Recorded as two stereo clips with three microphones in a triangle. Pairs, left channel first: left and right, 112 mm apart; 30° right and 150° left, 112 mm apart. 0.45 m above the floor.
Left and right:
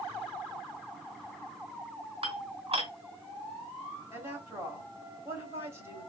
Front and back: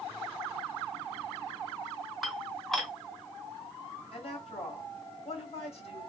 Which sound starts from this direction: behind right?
Dishes clattering, at 2.2 s.